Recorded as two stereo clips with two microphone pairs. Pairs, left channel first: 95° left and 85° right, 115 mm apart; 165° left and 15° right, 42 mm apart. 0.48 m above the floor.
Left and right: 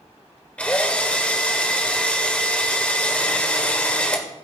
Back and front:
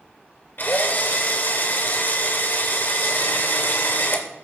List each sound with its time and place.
0.6 s a drill: 175° left, 2 m